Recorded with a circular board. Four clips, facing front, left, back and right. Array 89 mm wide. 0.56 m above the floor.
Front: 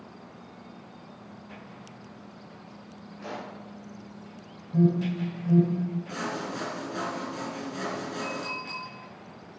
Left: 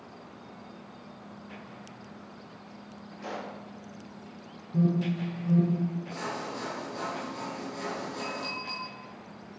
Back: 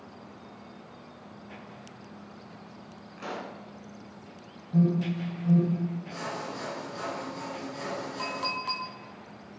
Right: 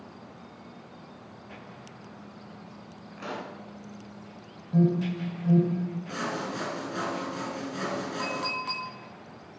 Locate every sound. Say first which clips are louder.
3.2 s a pop: right 1 dB, back 1 dB; 130° right, 2.5 m
4.7 s an alarm: right 2 dB, front 1 dB; 105° right, 3 m
6.1 s sawing: right 3 dB, front 3 dB; 55° right, 1.9 m
8.2 s a clink: right 4 dB, back 1 dB; 145° right, 2.5 m